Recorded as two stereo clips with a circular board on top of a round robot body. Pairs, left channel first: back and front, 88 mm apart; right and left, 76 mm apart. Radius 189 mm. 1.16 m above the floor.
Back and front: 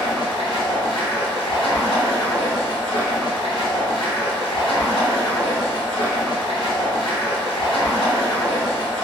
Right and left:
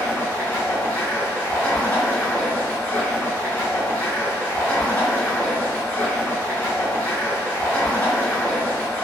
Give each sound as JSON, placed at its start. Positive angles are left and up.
{"t": 0.0, "sound": "running water", "azimuth_deg": -160, "distance_m": 0.8}